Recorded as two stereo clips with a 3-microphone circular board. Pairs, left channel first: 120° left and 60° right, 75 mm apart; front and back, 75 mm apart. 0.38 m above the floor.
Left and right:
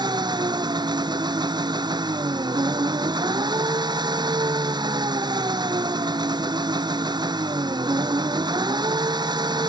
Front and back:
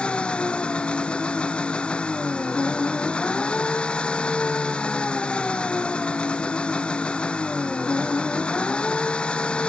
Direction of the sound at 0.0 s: 75° right.